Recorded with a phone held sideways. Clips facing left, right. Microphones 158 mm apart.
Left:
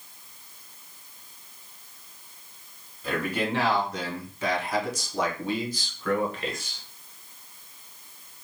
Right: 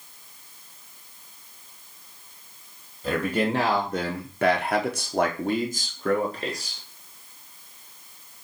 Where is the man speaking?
30° right (ahead or behind), 1.0 m; by 6.8 s 35° right (ahead or behind), 1.5 m.